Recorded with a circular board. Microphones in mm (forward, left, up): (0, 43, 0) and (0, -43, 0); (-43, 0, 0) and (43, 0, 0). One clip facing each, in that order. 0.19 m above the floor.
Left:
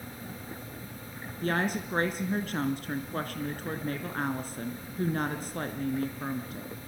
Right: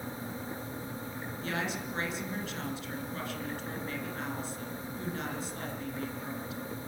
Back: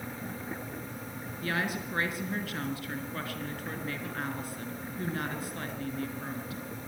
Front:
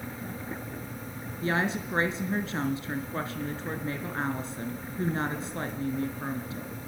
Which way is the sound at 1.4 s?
60° left.